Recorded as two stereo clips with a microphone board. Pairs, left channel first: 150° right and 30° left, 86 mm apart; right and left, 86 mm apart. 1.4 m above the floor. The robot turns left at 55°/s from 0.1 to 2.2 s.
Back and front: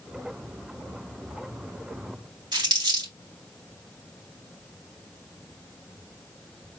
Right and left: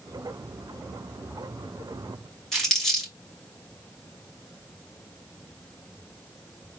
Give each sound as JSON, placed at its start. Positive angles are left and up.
{"t": 2.5, "sound": "crumpling", "azimuth_deg": -5, "distance_m": 2.5}